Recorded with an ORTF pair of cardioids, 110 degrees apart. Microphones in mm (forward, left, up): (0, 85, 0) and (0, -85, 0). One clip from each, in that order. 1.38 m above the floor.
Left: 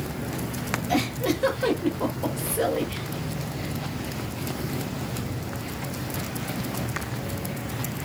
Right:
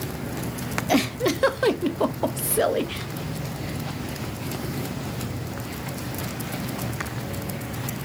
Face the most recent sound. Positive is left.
turn(degrees=-35)